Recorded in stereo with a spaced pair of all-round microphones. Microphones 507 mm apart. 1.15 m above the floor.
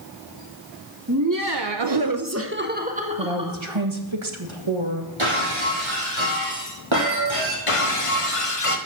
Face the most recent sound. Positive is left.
turn(degrees=85)